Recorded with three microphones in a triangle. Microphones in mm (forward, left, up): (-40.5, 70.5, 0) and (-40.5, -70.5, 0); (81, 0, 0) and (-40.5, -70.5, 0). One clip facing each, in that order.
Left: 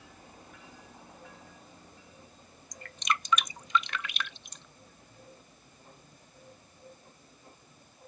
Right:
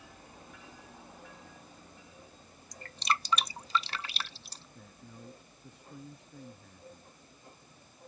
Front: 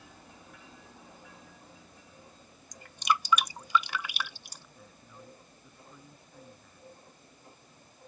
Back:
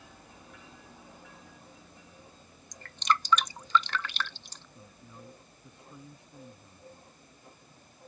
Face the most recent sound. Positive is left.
turn(degrees=-80)